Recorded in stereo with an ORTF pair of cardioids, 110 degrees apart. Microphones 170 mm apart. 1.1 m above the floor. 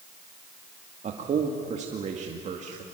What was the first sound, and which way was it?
A man speaking, 45° right.